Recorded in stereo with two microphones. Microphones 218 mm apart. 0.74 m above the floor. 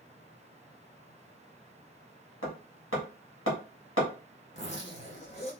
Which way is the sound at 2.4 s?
80° left.